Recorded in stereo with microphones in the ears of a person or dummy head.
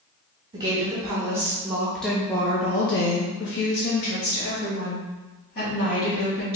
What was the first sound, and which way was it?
A woman speaking, 25° right (ahead or behind).